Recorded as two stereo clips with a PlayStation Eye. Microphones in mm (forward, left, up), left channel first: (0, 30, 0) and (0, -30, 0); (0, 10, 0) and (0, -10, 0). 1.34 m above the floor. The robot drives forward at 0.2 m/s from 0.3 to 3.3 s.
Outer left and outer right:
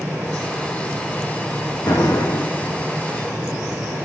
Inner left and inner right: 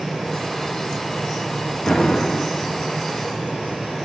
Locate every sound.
1.9 s an explosion: 80° left, 2.5 m